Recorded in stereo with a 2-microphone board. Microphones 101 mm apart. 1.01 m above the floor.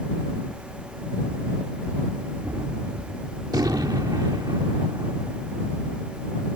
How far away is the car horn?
I don't hear a car horn.